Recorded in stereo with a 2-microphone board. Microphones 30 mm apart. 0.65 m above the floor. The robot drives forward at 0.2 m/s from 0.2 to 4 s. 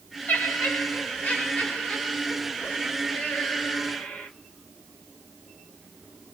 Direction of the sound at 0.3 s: 70° left (ahead or behind).